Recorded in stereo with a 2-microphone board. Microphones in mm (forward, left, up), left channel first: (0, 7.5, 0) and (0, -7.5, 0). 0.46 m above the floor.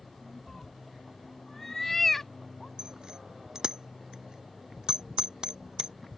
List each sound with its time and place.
0.5 s a cat meowing: 15° left (ahead or behind)
2.8 s a bicycle bell: 55° right (ahead or behind)